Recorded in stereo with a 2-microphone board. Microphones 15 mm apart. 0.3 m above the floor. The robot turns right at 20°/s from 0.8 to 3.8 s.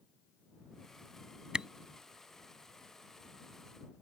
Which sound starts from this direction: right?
A camera shutter, at 1.5 s.